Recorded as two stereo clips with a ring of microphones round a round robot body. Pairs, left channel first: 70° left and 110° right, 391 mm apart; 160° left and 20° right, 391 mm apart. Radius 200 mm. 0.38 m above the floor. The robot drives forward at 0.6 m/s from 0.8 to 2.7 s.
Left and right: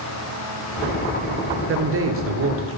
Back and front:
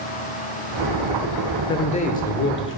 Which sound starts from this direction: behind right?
A man speaking, at 1.7 s.